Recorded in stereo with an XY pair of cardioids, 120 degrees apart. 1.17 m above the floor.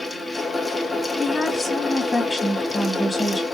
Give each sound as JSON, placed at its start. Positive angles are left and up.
{"t": 0.0, "sound": "a fan", "azimuth_deg": 10, "distance_m": 0.9}
{"t": 1.2, "sound": "a woman speaking", "azimuth_deg": 10, "distance_m": 1.6}